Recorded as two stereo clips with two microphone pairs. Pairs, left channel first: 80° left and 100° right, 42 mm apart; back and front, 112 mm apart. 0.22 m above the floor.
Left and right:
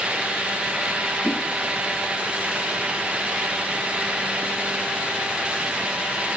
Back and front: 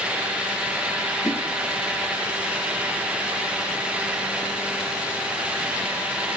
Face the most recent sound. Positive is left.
turn(degrees=125)